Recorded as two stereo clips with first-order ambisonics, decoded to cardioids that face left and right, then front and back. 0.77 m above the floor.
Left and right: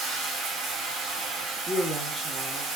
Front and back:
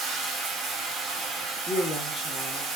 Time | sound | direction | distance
0.0 | running water | 130° right | 1.8 m
1.6 | a woman speaking | 10° right | 0.9 m